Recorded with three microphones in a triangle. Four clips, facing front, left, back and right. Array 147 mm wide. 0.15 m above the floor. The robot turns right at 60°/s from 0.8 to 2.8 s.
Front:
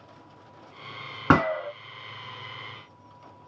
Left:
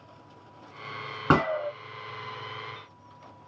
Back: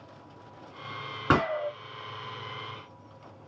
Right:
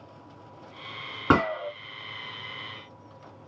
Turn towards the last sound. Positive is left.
turn(degrees=85)